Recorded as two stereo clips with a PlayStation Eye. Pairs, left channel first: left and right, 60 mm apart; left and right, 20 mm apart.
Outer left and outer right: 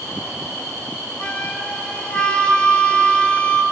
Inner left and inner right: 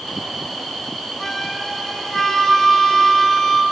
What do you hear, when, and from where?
1.2 s a flute: 20° left (ahead or behind), 0.9 m